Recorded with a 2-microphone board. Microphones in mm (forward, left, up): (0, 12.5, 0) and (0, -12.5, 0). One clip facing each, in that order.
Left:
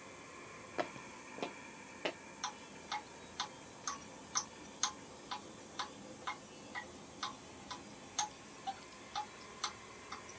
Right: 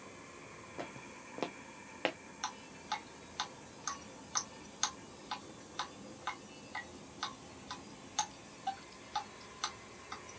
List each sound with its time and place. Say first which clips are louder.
0.8 s footsteps: left 5 dB; 45° left (ahead or behind), 0.7 m; by 2.2 s 55° right (ahead or behind), 1.7 m
2.4 s dripping: right 3 dB; 20° right (ahead or behind), 1.6 m